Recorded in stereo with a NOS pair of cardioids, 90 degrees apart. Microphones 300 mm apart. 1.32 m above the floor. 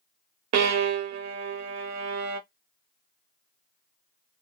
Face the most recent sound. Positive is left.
turn(degrees=-65)